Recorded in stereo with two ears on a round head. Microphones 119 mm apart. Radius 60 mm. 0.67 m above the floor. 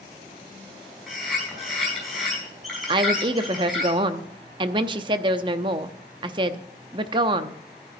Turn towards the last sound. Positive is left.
turn(degrees=-35)  # may be behind; listen again after turning